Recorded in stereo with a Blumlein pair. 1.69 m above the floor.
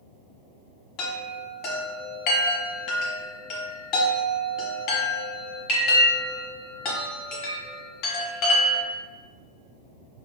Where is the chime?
40° left, 0.8 m.